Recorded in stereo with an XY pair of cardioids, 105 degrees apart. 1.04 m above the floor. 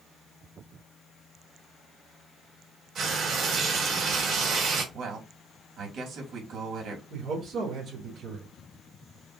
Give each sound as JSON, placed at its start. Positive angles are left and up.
{"t": 3.0, "sound": "frying", "azimuth_deg": -50, "distance_m": 3.0}
{"t": 4.9, "sound": "a man speaking", "azimuth_deg": -65, "distance_m": 2.5}
{"t": 7.1, "sound": "a man speaking", "azimuth_deg": -65, "distance_m": 3.0}